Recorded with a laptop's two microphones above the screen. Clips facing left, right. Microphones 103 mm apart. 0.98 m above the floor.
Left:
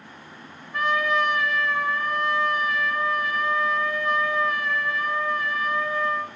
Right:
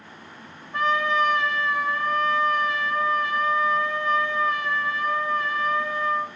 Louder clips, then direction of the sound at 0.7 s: Right 1 dB; 30° right (ahead or behind).